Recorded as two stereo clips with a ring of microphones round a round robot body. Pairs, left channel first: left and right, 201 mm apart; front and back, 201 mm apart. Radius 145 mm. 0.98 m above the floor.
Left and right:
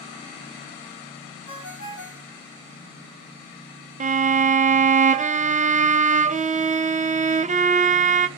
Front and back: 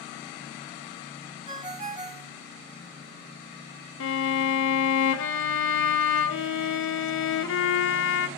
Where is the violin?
30° right, 0.6 m.